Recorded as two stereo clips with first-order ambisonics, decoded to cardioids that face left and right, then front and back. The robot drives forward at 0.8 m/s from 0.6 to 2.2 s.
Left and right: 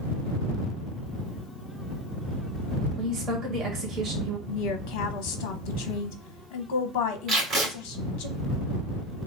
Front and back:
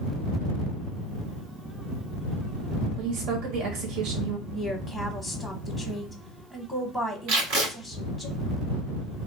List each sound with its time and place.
3.0 s a woman speaking: 170° right, 1.2 m
4.5 s a woman speaking: 100° left, 0.9 m
7.3 s tape being pulled: 160° right, 2.5 m